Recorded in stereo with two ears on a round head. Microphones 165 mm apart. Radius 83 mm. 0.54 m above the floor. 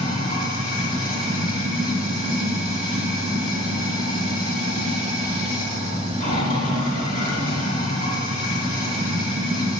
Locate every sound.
0.0 s running water: 50° left (ahead or behind), 1.4 m